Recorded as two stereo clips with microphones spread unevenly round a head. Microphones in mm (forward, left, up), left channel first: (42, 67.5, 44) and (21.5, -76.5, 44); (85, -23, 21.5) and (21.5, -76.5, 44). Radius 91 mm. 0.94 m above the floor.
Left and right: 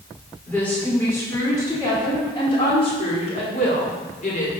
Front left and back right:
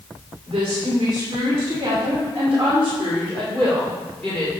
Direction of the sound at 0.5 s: 165° left.